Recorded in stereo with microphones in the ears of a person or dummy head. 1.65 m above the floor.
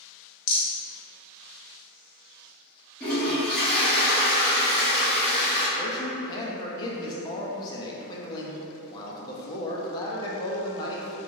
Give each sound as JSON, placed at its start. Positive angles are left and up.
{"t": 0.5, "sound": "a rattle", "side_deg": 65, "distance_m": 1.3}
{"t": 3.0, "sound": "a toilet flushing", "side_deg": 10, "distance_m": 1.7}
{"t": 5.8, "sound": "a man speaking", "side_deg": 25, "distance_m": 0.6}